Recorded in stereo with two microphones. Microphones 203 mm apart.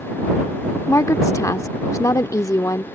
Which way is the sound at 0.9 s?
15° left (ahead or behind).